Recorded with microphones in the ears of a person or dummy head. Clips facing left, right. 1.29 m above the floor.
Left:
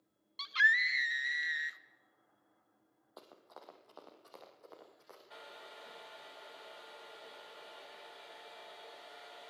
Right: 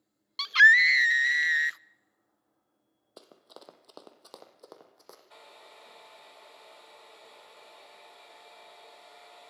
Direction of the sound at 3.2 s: 35° right (ahead or behind).